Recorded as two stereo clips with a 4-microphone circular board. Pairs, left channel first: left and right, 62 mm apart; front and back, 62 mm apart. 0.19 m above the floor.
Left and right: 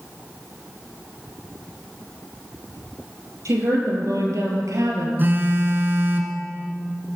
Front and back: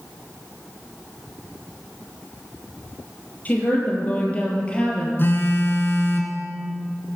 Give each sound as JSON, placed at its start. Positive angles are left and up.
{"t": 3.5, "sound": "a woman speaking", "azimuth_deg": -65, "distance_m": 4.0}
{"t": 5.2, "sound": "a phone buzzing", "azimuth_deg": -40, "distance_m": 1.6}